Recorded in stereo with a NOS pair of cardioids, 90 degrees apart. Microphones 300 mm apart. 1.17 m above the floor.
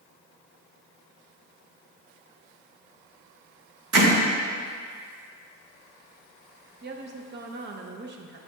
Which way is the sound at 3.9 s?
60° right.